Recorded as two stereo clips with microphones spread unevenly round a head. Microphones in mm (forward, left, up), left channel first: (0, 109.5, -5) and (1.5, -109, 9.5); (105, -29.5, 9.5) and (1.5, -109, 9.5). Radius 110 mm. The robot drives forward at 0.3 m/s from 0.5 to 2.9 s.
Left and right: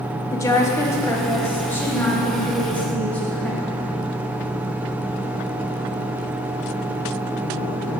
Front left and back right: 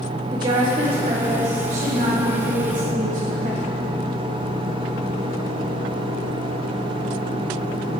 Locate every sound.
0.3 s a woman speaking: 160° left, 0.5 m; by 3.8 s 175° left, 1.2 m